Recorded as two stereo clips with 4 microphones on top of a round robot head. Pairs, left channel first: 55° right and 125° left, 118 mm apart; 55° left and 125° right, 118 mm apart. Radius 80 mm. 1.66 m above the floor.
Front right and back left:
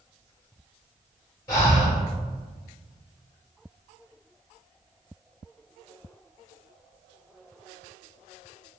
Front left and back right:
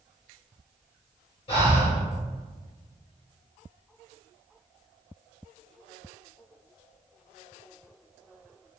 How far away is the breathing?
About 0.9 m.